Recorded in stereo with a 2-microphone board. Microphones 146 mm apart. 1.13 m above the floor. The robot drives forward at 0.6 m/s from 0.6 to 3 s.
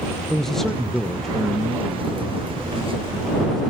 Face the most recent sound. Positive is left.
turn(degrees=0)  # may be behind; listen again after turning